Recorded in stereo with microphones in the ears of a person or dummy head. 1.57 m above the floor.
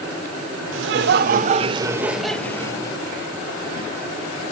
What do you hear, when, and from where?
0.7 s laughter: 75° right (ahead or behind), 0.9 m; by 3.0 s 20° left (ahead or behind), 1.2 m